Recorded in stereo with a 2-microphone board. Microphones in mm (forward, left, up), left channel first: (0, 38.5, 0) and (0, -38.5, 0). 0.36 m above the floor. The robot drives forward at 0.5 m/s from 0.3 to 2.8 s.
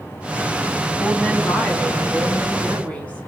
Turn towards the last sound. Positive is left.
turn(degrees=15)  # may be behind; listen again after turning